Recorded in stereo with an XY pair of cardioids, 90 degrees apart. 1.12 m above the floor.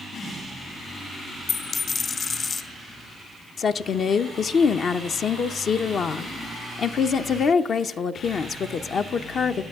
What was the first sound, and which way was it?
A dropped coin, 55° left.